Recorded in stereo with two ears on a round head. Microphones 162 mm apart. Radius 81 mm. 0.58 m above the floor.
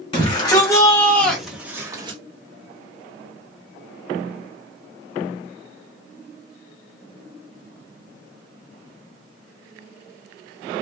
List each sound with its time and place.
0.1 s a shout: 30° left (ahead or behind), 1.8 m; by 2.2 s 30° right (ahead or behind), 1.1 m